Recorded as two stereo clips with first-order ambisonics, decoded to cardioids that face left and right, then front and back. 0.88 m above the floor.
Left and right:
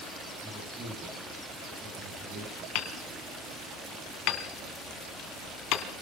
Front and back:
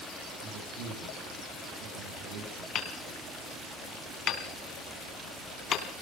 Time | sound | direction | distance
0.4 | a man speaking | 160° right | 9.5 m
2.8 | hammering | 60° left | 2.5 m